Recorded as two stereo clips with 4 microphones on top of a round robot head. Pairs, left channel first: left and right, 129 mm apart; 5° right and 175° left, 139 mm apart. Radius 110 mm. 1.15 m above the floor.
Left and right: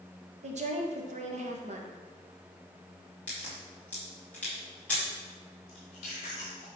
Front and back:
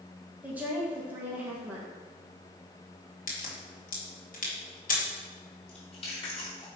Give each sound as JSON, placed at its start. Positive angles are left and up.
{"t": 0.4, "sound": "a woman speaking", "azimuth_deg": -105, "distance_m": 1.5}
{"t": 3.3, "sound": "a crack", "azimuth_deg": 10, "distance_m": 2.5}
{"t": 5.7, "sound": "chewing", "azimuth_deg": 40, "distance_m": 3.0}